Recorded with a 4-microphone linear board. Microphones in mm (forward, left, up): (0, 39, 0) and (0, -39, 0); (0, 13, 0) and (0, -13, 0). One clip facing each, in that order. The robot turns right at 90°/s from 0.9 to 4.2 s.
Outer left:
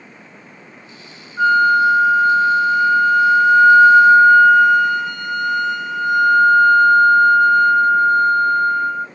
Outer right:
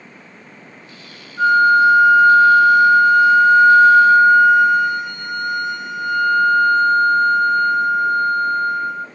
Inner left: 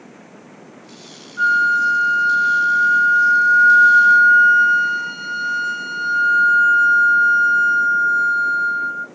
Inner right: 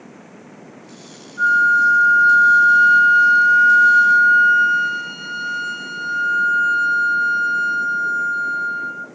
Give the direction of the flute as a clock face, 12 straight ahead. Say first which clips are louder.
Outer right 1 dB, inner right 1 dB; 8 o'clock.